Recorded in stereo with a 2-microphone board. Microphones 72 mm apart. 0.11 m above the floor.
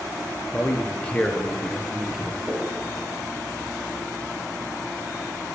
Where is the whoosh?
15° right (ahead or behind), 4 m.